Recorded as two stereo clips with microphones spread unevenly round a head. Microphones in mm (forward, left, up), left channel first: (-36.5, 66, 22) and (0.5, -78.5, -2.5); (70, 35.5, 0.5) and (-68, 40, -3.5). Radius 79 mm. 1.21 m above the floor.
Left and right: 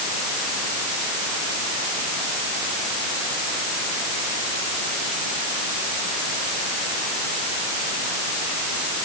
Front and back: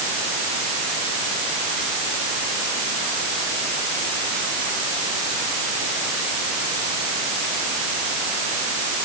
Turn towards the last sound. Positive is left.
No sound to turn to.